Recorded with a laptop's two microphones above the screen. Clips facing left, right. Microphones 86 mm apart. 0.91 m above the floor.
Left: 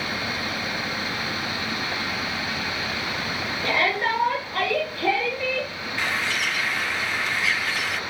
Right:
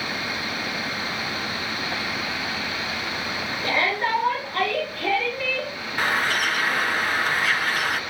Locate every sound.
3.6 s a shout: centre (ahead or behind), 3 m; by 5.7 s 25° left (ahead or behind), 1.1 m
6.0 s a bird: 50° right (ahead or behind), 0.5 m